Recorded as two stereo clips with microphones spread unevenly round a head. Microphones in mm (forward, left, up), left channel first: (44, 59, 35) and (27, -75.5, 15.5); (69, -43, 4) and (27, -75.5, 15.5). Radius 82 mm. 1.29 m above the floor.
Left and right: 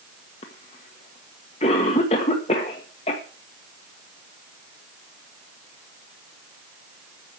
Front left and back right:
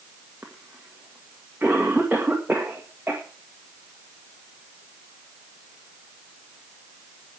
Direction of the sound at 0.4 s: 140° left.